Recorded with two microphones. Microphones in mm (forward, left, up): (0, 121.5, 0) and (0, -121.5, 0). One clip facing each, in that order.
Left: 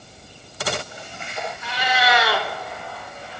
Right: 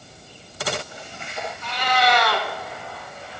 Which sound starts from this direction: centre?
A cat meowing, at 1.6 s.